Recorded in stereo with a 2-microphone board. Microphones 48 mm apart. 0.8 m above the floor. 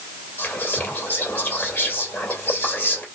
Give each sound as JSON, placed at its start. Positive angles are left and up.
{"t": 0.4, "sound": "whispering", "side_deg": 35, "distance_m": 2.5}